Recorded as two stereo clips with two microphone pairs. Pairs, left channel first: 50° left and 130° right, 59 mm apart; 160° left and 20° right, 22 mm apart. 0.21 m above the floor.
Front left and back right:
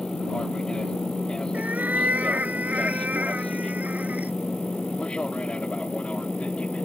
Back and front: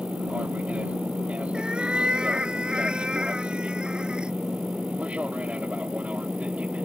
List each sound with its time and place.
0.0 s an aircraft: 25° right; by 6.8 s 20° right
1.5 s a cat meowing: 65° right